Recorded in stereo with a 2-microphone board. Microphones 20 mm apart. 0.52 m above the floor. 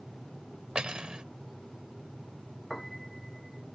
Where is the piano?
5° left (ahead or behind).